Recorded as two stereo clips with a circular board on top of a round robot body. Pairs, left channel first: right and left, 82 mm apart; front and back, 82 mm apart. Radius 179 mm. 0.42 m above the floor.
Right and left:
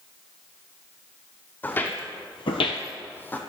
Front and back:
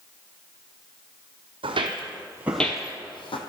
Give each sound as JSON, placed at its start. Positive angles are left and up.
{"t": 1.6, "sound": "footsteps", "azimuth_deg": -160, "distance_m": 1.2}